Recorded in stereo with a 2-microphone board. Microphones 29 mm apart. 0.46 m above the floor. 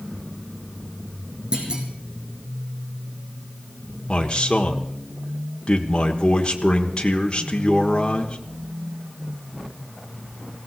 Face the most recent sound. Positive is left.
turn(degrees=30)  # may be behind; listen again after turning